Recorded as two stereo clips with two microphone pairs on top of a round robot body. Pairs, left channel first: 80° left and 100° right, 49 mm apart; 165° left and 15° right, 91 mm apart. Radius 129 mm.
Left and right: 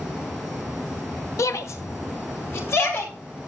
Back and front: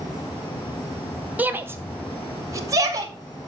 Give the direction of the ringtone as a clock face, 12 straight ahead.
I don't hear a ringtone.